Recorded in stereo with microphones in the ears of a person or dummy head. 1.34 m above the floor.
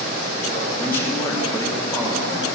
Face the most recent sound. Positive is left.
turn(degrees=15)  # may be behind; listen again after turning